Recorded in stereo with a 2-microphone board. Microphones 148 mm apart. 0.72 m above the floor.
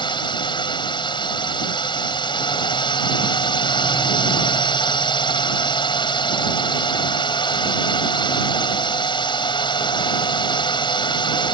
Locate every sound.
0.0 s a drone: 35° left (ahead or behind)